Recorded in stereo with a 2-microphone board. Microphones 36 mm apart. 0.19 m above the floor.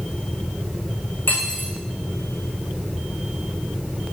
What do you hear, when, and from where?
1.3 s cutlery clinking: 60° left (ahead or behind), 7 m